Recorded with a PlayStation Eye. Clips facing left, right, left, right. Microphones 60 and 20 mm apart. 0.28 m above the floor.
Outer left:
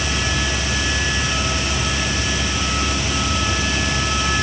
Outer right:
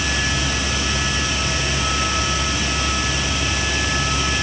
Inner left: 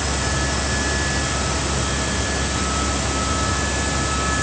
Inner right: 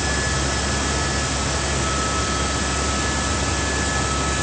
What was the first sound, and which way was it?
Only background noise.